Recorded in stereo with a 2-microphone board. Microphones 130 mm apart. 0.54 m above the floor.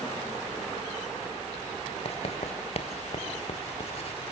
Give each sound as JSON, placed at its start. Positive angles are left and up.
{"t": 2.0, "sound": "writing", "side_deg": 55, "distance_m": 2.0}